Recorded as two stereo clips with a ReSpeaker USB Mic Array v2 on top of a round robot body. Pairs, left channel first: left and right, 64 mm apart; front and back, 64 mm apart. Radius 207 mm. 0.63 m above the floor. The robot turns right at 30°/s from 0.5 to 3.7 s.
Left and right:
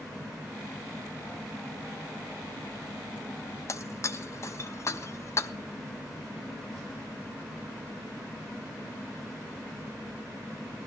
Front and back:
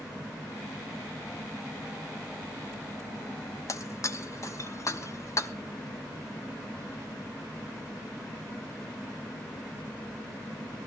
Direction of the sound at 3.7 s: 45° left.